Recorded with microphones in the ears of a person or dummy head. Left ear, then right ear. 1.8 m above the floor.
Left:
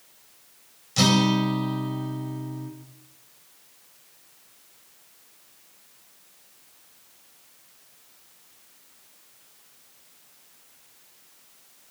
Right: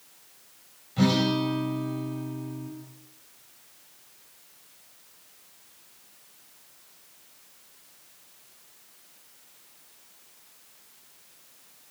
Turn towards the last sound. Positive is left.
turn(degrees=75)  # may be behind; listen again after turning